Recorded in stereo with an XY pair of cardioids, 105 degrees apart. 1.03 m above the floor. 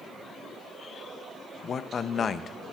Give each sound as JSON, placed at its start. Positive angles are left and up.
{"t": 1.6, "sound": "a man speaking", "azimuth_deg": 45, "distance_m": 0.6}